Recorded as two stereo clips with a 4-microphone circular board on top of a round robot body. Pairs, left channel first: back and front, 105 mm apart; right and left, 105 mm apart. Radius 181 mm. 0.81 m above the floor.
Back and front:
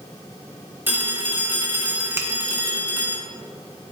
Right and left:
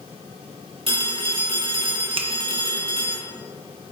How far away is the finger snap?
About 1.1 m.